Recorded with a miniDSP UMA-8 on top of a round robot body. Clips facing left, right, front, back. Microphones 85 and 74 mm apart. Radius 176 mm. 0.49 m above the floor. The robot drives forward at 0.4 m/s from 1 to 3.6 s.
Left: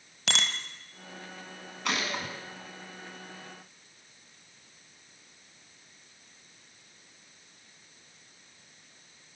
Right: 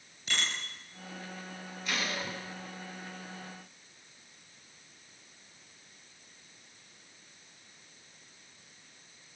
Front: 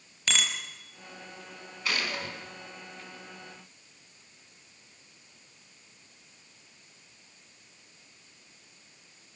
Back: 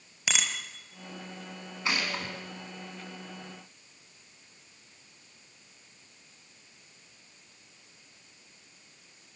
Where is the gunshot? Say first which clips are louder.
Left 3 dB, back 1 dB; 110° left, 5.5 m; by 2.4 s 115° left, 5.5 m.